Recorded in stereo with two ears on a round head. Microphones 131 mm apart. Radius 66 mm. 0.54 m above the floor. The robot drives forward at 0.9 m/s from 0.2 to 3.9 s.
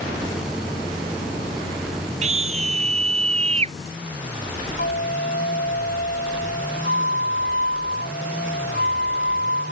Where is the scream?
50° right (ahead or behind); by 3.8 s 45° right (ahead or behind).